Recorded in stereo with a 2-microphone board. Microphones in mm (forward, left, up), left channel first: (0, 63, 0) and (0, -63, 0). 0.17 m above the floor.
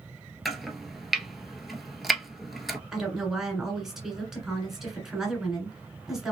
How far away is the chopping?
About 0.7 m.